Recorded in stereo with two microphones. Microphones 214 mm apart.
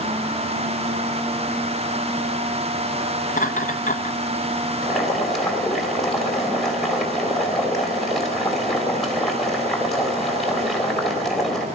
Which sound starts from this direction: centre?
Boiling, at 4.8 s.